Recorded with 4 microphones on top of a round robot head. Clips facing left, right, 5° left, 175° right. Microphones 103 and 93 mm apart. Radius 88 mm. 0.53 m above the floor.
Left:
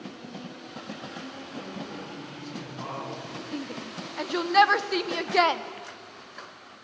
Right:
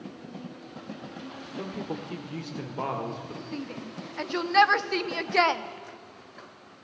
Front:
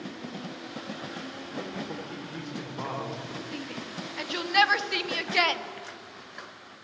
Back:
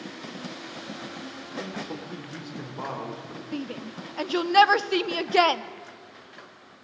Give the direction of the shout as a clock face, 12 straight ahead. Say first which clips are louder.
Left 2 dB, back 3 dB; 6 o'clock.